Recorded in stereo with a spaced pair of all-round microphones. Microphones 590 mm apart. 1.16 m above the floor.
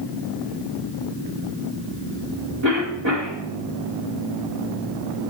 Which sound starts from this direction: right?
A cough, at 2.6 s.